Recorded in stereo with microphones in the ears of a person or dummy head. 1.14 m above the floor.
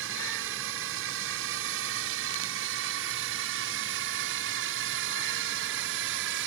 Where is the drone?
70° right (ahead or behind); by 6.5 s 65° right (ahead or behind).